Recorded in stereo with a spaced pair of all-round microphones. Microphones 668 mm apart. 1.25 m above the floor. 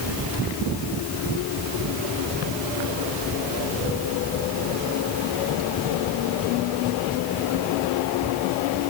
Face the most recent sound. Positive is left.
No sound to turn to.